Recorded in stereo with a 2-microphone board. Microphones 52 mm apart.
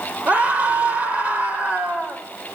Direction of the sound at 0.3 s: 25° right (ahead or behind).